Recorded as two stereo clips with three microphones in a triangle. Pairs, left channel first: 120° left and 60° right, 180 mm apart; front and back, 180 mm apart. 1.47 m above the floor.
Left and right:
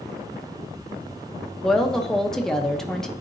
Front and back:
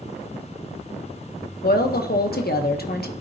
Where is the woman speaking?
35° left, 0.9 m.